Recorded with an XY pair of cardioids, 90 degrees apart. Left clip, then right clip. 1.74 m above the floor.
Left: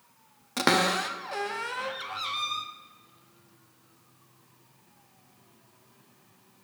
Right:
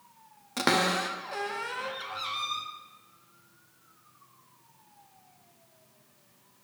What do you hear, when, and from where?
0.6 s a cupboard door: 25° left, 0.5 m